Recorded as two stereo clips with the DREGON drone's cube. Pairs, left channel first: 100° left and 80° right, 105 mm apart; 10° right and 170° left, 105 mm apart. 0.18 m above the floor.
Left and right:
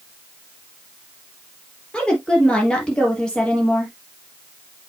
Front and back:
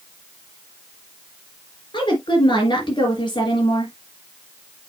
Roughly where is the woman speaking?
Ahead.